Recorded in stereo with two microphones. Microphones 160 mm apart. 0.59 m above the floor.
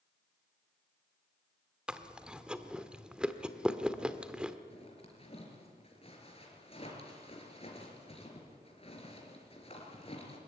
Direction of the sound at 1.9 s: 5° right (ahead or behind).